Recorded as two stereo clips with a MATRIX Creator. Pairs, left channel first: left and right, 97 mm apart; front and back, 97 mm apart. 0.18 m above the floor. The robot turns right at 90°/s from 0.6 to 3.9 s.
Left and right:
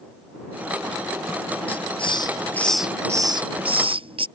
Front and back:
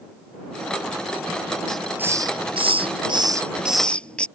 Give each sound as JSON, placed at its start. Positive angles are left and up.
{"t": 1.7, "sound": "a hiss", "azimuth_deg": 80}